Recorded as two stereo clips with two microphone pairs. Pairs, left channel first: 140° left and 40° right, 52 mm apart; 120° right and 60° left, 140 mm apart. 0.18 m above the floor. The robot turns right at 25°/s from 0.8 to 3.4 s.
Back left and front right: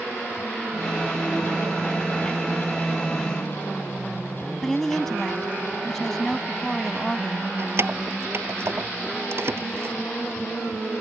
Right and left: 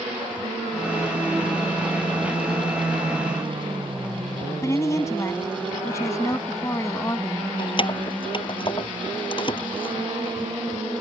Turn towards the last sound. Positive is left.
turn(degrees=-75)